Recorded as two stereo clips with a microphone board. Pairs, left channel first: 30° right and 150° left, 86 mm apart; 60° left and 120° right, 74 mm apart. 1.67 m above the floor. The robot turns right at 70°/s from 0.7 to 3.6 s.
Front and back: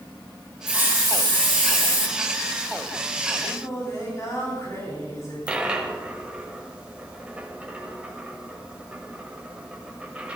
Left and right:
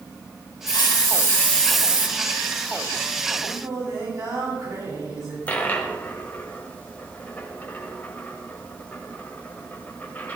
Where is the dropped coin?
90° left, 1.5 m.